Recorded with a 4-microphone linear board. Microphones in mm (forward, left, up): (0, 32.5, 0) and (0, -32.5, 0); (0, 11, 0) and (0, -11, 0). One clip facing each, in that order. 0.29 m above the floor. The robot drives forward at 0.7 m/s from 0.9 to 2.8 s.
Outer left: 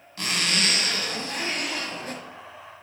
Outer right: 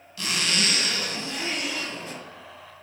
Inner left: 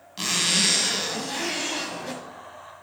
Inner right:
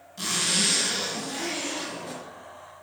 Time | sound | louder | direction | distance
0.2 | a zipper | outer left 1 dB, inner left 3 dB | 45° left (ahead or behind) | 1.9 m